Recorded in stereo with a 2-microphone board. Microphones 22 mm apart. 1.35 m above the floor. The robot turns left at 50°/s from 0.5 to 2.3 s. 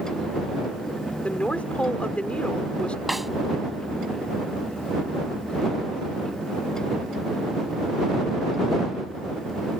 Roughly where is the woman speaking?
Behind left.